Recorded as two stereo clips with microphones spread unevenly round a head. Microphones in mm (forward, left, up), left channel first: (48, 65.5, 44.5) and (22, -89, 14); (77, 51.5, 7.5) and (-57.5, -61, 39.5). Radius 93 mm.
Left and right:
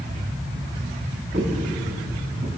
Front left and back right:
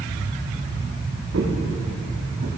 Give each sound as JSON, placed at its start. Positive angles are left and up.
{"t": 1.3, "sound": "footsteps", "azimuth_deg": -155, "distance_m": 5.0}